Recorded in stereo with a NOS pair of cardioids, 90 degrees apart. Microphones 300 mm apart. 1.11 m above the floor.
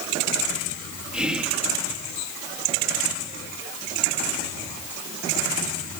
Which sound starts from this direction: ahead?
Whispering, at 1.1 s.